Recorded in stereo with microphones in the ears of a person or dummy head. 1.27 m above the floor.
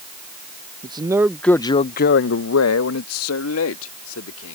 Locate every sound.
0.8 s a man speaking: 30° right (ahead or behind); by 4.5 s 80° left